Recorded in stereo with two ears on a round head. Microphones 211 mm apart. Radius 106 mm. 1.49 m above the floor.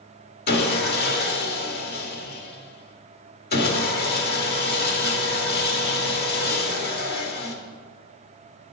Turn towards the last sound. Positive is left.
turn(degrees=40)  # may be behind; listen again after turning